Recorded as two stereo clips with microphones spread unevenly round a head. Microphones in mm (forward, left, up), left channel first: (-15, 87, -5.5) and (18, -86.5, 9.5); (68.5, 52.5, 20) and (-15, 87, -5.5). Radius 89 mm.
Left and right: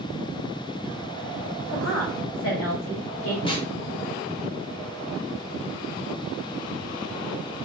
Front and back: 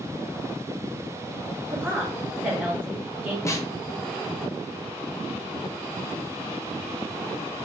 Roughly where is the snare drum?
Ahead left.